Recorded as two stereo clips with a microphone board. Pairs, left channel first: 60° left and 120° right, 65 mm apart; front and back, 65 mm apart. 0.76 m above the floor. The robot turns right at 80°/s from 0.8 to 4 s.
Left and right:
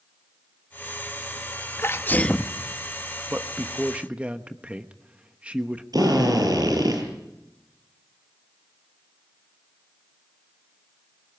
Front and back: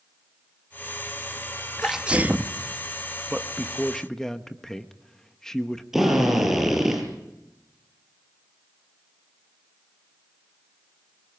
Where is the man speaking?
130° right, 1.1 m; by 5.8 s 70° right, 1.1 m.